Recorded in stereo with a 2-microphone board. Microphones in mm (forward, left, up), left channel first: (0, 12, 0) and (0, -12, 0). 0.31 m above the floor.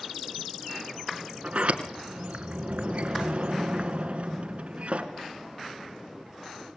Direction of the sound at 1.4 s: 55° right (ahead or behind).